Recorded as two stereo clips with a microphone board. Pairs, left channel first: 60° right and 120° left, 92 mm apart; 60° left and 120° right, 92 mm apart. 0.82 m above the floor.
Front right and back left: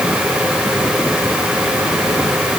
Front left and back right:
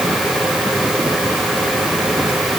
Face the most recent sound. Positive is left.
No sound to turn to.